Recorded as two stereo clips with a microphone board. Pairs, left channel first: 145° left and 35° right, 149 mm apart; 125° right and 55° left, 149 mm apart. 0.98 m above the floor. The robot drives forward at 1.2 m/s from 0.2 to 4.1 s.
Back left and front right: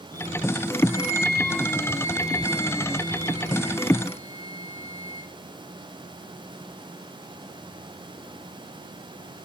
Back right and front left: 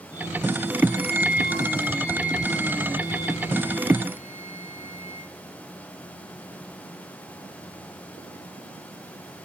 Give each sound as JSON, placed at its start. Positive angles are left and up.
{"t": 0.9, "sound": "a flute", "azimuth_deg": -105, "distance_m": 1.6}